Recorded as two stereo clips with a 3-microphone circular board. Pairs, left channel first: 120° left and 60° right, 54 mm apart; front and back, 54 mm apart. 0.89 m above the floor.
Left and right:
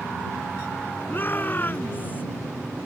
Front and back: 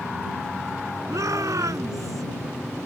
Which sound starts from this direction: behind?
A shout, at 1.1 s.